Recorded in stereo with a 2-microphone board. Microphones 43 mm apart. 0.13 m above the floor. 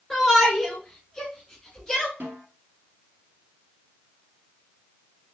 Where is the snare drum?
50° right (ahead or behind), 3 m.